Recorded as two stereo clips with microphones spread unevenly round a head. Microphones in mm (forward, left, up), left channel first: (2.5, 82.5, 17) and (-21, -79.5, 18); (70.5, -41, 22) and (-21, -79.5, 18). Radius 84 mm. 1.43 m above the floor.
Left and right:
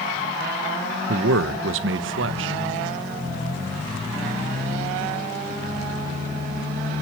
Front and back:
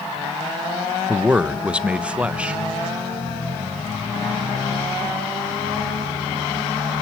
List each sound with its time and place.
1.1 s a man speaking: 75° right, 1.1 m